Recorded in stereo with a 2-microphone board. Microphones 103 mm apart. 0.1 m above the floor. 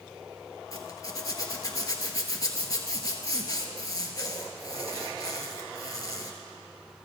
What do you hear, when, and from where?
0.7 s a zipper: 35° left (ahead or behind), 1.1 m